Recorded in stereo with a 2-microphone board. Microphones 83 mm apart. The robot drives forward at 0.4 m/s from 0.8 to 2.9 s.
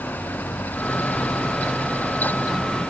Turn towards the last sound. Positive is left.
No sound to turn to.